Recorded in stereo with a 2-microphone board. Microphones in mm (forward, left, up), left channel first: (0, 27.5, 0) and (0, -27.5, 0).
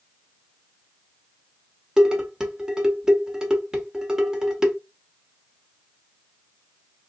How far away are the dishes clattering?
About 0.9 m.